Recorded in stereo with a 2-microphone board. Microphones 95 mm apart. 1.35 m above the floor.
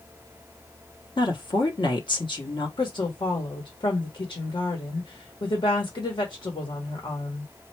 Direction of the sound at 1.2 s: 55° left (ahead or behind).